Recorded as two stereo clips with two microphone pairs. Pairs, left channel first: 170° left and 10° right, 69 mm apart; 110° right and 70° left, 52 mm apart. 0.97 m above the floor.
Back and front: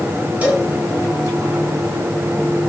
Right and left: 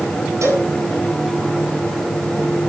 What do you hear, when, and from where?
0.4 s a cowbell: 60° left, 9 m